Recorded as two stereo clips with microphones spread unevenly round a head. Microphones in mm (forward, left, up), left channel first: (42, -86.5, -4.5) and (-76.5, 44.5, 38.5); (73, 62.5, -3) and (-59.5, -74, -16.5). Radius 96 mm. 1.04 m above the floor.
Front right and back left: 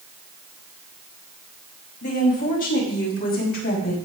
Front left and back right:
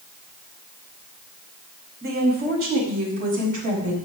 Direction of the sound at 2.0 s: 95° right.